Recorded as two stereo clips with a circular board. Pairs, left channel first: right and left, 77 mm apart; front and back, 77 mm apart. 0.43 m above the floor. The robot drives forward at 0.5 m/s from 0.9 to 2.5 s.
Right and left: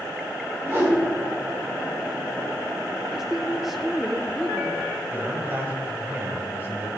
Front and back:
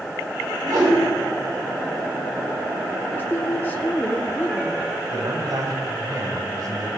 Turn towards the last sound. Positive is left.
turn(degrees=150)